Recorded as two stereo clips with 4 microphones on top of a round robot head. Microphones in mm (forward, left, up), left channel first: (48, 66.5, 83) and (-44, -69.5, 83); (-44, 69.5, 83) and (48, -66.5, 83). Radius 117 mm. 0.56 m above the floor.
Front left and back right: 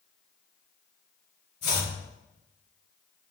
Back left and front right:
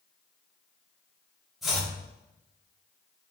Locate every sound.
1.6 s chopping: 30° left, 4.5 m